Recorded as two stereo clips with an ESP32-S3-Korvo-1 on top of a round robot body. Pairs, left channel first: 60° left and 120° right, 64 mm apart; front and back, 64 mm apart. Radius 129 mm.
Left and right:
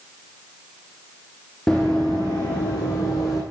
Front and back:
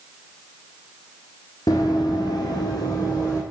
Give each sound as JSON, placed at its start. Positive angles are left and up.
{"t": 1.7, "sound": "running footsteps", "azimuth_deg": -15, "distance_m": 0.8}